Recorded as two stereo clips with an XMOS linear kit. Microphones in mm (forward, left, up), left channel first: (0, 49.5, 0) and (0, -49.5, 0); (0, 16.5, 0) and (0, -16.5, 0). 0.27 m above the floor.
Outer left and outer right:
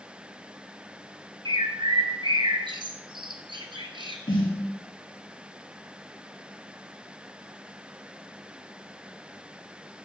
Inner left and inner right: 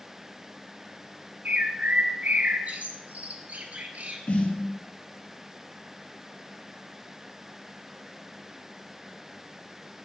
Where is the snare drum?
70° left (ahead or behind), 5 m.